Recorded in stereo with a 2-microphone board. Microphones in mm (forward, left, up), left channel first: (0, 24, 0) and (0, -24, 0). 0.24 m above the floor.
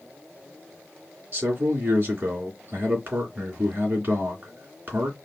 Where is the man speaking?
40° right (ahead or behind), 2.5 m.